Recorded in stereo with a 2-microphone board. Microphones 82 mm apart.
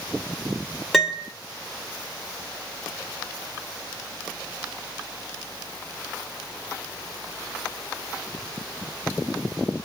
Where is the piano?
Centre (ahead or behind), 0.7 m.